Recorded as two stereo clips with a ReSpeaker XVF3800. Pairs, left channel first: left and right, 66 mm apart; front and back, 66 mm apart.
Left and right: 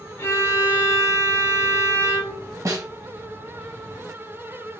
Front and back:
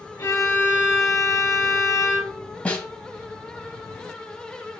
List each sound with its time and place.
0.2 s a violin: 40° left, 1.3 m
2.6 s a snare drum: 65° right, 1.2 m